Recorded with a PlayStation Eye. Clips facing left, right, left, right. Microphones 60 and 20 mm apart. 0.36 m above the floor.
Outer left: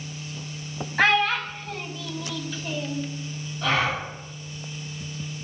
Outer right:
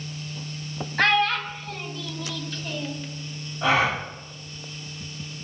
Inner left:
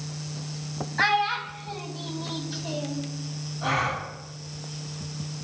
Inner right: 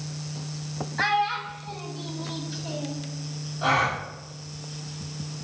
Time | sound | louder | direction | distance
1.0 | a child speaking | outer left 1 dB, inner left 1 dB | 10° left (ahead or behind) | 1.2 m
3.6 | a gasp | outer right 3 dB, inner right 3 dB | 25° right (ahead or behind) | 4.5 m